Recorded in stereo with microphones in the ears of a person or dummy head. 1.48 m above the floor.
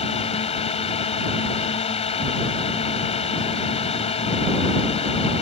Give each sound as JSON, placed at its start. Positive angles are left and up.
{"t": 0.0, "sound": "a drone", "side_deg": 35}